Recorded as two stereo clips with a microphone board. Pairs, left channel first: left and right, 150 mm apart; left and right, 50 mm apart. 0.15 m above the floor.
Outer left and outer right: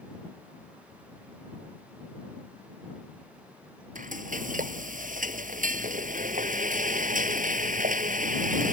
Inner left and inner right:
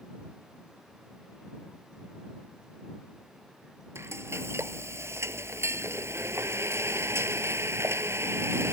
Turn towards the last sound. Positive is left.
turn(degrees=-65)  # may be behind; listen again after turning